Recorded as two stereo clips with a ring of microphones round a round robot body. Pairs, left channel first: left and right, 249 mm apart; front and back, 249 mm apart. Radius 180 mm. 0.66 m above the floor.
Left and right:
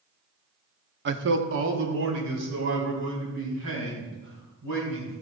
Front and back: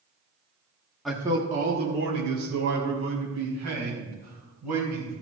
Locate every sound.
1.1 s a man speaking: 90° right, 1.1 m; by 5.1 s 145° right, 6.5 m